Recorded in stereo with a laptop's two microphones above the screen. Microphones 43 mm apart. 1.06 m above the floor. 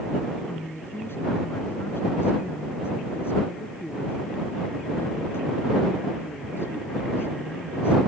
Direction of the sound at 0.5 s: 70° left (ahead or behind).